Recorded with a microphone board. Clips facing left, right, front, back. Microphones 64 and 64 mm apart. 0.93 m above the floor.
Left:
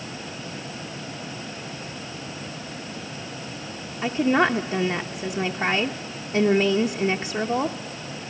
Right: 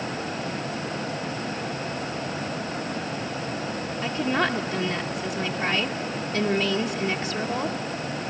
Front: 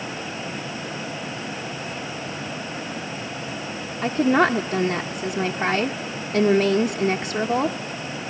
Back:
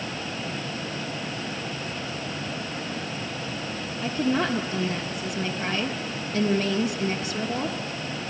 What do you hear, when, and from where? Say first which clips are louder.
4.0 s a woman speaking: left 5 dB, front 7 dB; 35° left, 0.6 m